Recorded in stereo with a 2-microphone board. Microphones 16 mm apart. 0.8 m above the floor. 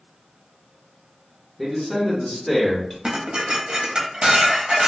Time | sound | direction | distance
1.6 | a man speaking | 5° left (ahead or behind) | 1.0 m
3.0 | dishes clattering | 65° right (ahead or behind) | 0.6 m